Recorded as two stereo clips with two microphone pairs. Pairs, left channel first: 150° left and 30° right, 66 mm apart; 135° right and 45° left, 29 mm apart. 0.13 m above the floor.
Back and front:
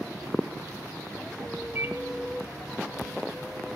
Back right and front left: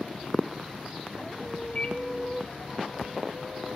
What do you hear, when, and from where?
1.8 s a microwave: 80° right, 2.5 m